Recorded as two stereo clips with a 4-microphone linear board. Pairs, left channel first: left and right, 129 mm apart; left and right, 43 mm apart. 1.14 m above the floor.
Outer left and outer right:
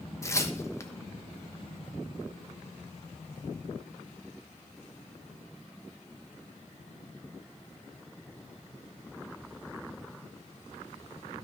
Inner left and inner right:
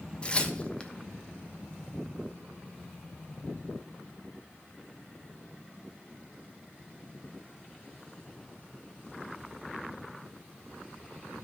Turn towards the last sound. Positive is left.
turn(degrees=20)  # may be behind; listen again after turning